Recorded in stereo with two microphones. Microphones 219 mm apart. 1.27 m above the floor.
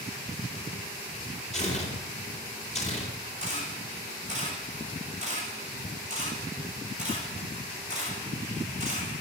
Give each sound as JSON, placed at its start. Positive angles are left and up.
{"t": 1.5, "sound": "tearing paper", "side_deg": 30, "distance_m": 3.5}
{"t": 3.4, "sound": "a camera shutter", "side_deg": -35, "distance_m": 5.5}